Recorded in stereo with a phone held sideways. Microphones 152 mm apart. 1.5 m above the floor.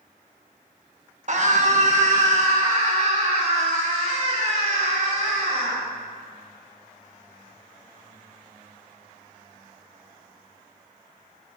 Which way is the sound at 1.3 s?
55° right (ahead or behind).